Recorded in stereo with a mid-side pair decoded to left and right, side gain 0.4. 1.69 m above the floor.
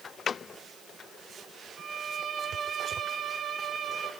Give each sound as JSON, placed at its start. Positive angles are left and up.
{"t": 1.8, "sound": "a violin", "azimuth_deg": -45, "distance_m": 3.0}